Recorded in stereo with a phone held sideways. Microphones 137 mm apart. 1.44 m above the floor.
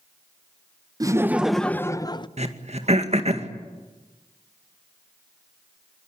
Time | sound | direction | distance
1.0 | laughter | 25° right (ahead or behind) | 0.7 m
2.4 | throat clearing | 50° right (ahead or behind) | 2 m